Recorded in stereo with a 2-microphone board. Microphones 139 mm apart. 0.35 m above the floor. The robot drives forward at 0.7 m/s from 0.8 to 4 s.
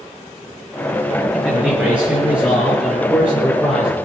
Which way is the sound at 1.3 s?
10° right (ahead or behind).